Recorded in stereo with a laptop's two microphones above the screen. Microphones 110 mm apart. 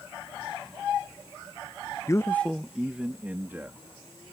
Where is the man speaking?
30° left (ahead or behind); by 4.2 s 20° right (ahead or behind).